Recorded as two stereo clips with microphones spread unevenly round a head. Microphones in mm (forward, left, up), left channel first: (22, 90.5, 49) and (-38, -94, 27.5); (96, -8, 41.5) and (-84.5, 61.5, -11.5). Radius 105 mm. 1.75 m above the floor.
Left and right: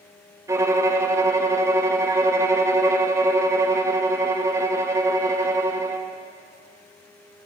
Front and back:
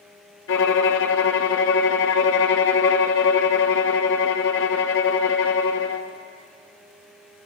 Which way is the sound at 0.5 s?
30° right.